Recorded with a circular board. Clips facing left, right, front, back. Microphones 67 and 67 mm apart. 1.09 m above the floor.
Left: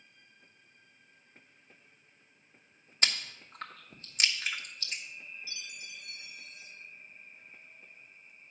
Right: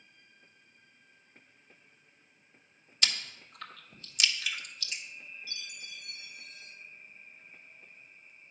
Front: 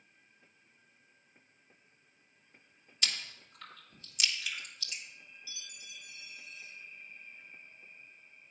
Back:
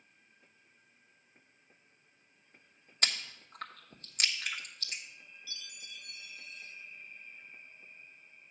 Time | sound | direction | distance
3.0 | chewing | 140° left | 1.0 m
5.5 | a chime | 80° right | 1.1 m